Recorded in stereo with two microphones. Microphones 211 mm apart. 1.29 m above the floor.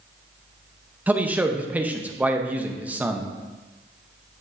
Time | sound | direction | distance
1.1 | a man speaking | 5° right (ahead or behind) | 0.6 m